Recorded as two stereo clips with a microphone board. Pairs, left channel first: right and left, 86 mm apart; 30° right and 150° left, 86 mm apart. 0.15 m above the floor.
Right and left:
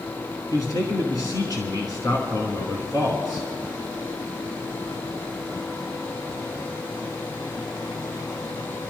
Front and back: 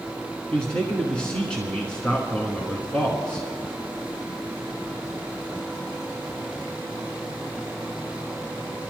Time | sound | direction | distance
0.5 | a man speaking | 100° right | 1.5 m